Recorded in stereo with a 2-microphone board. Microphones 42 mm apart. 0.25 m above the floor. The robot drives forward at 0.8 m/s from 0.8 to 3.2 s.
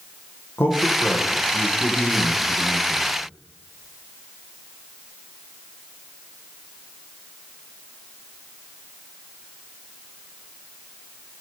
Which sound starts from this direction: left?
A man speaking, at 0.6 s.